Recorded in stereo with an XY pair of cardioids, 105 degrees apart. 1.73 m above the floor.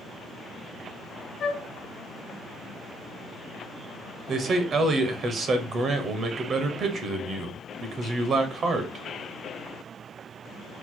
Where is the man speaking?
55° right, 1.0 m.